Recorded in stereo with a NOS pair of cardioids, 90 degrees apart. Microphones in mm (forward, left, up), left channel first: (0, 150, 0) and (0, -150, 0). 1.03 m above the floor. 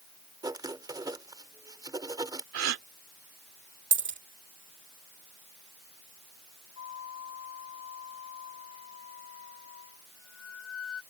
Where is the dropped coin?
40° right.